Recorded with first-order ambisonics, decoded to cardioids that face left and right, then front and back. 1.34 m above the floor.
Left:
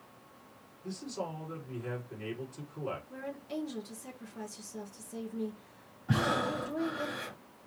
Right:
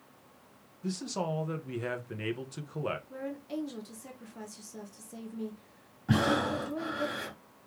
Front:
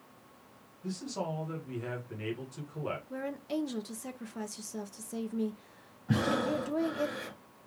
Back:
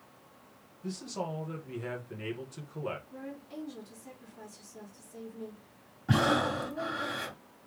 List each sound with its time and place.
0.8 s a man speaking: 95° right, 1.5 m
3.1 s a woman speaking: straight ahead, 0.9 m
6.1 s breathing: 150° right, 1.5 m